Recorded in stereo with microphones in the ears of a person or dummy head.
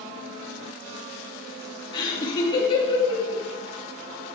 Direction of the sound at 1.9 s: 25° left (ahead or behind).